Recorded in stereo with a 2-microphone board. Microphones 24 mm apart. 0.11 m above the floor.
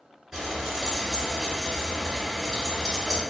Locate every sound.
0.3 s frying: 20° right (ahead or behind), 1.8 m